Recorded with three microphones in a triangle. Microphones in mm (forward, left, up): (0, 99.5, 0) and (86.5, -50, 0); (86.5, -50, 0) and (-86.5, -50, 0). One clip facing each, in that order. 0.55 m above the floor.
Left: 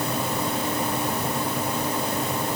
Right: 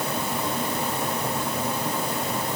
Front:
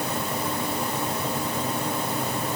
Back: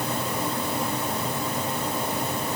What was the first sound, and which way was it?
Only background noise.